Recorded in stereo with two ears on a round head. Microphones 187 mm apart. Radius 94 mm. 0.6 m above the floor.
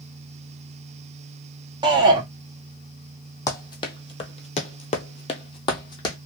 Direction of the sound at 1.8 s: 20° right (ahead or behind).